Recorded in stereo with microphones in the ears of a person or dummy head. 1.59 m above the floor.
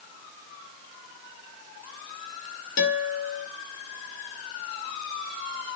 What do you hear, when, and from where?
2.8 s a guitar: 55° left (ahead or behind), 1.6 m